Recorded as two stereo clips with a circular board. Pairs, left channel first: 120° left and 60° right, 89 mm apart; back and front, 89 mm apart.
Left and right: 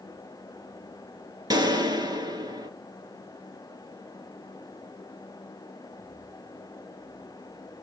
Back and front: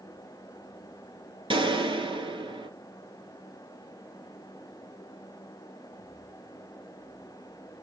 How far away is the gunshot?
About 2.5 m.